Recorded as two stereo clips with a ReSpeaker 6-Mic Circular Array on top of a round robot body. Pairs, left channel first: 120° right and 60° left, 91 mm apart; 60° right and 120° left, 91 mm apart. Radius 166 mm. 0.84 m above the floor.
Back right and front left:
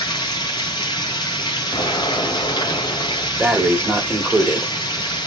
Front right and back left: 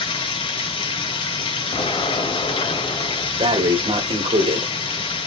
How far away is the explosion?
About 2.5 m.